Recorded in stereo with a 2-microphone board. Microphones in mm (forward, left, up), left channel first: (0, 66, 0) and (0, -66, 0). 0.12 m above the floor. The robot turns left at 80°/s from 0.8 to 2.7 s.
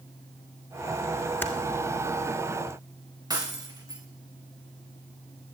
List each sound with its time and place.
1.4 s typing on a keyboard: 15° left (ahead or behind), 1.9 m; by 1.5 s 10° left (ahead or behind), 1.9 m
3.3 s breaking glass: 30° right (ahead or behind), 3 m